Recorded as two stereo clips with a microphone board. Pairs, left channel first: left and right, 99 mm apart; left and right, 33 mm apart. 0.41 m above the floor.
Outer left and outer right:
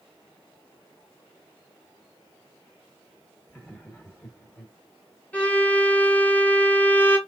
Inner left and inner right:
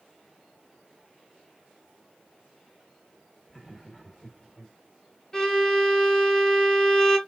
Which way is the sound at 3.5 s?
15° left (ahead or behind).